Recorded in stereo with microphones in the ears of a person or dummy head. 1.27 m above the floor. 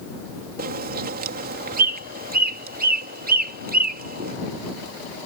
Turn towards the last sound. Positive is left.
turn(degrees=-45)  # may be behind; listen again after turning